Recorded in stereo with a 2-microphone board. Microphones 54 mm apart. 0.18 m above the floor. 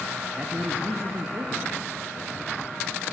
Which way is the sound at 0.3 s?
25° right (ahead or behind).